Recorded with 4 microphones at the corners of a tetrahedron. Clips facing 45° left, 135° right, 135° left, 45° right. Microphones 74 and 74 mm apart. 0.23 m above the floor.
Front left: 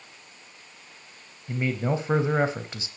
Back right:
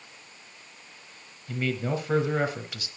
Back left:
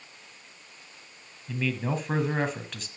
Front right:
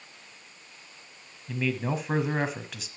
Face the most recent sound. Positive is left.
turn(degrees=35)